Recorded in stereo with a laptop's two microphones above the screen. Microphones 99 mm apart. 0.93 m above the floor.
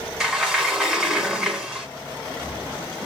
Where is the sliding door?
5° right (ahead or behind), 1.9 m.